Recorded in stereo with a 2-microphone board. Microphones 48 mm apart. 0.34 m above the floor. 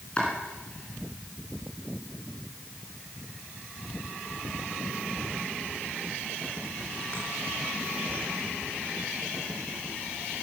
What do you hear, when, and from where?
0.2 s chopping: 25° left (ahead or behind), 4 m